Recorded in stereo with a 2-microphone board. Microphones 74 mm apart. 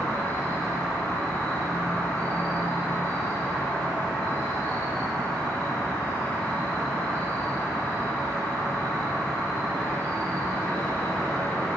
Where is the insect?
25° left (ahead or behind), 3.5 m.